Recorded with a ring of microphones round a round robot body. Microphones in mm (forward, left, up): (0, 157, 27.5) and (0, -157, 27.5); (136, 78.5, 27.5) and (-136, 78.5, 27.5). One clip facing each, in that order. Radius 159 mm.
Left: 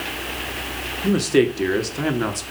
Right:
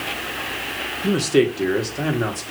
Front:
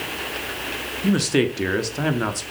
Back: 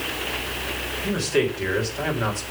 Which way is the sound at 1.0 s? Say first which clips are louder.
Even, front 3 dB; straight ahead.